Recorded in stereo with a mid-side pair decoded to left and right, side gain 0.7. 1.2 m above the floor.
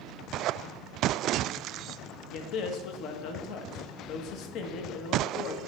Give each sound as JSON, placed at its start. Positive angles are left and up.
{"t": 2.3, "sound": "a man speaking", "azimuth_deg": 60, "distance_m": 1.2}